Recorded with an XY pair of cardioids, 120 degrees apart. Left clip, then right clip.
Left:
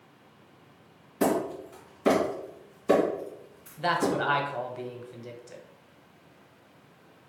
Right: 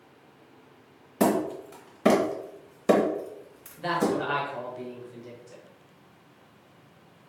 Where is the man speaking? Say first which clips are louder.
Left 1 dB; 35° left, 0.8 m.